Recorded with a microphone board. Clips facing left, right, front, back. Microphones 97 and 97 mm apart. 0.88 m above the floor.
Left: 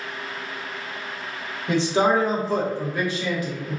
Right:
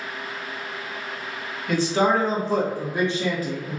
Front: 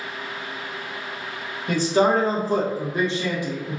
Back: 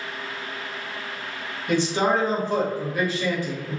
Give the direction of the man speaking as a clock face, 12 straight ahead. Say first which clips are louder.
Left 1 dB, front 3 dB; 11 o'clock.